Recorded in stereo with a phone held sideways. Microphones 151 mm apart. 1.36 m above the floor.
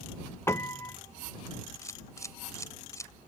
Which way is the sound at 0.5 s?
20° left (ahead or behind).